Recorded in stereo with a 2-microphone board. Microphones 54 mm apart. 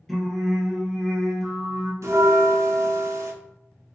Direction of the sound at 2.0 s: 70° right (ahead or behind).